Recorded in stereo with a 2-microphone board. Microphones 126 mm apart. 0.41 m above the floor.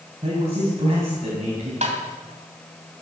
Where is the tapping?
60° right (ahead or behind), 2.5 m.